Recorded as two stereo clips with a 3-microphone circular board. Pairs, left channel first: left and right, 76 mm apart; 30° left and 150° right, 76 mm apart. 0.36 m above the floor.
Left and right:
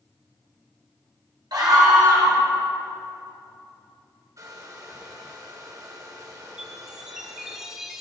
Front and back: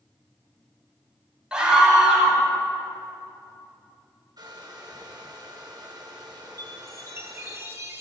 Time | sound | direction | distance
1.5 | a scream | 70° right | 2 m
4.4 | a hair dryer | 125° right | 2 m
6.6 | a chime | 165° right | 0.9 m